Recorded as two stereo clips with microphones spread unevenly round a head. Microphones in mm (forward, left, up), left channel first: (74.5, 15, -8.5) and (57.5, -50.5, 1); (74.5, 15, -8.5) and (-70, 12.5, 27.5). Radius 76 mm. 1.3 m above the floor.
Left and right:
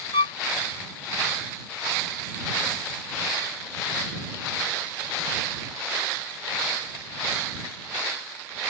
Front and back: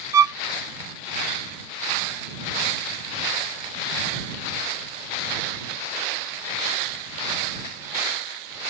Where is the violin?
115° left.